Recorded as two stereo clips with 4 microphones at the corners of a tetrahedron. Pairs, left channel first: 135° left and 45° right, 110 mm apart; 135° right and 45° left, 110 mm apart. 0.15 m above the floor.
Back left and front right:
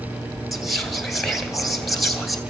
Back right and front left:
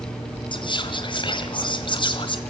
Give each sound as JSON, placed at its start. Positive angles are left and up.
{"t": 0.5, "sound": "whispering", "azimuth_deg": -135, "distance_m": 2.0}